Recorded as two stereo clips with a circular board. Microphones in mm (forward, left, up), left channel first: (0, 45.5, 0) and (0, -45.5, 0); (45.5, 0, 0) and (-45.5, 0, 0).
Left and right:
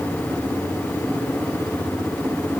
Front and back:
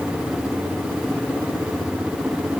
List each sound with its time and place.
Only background noise.